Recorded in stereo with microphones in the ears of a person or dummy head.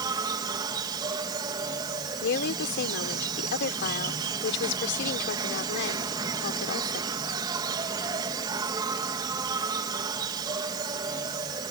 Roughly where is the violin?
I don't hear a violin.